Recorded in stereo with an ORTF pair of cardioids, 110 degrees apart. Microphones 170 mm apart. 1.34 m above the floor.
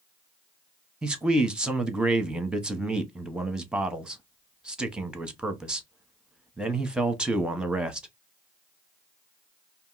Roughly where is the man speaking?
Ahead.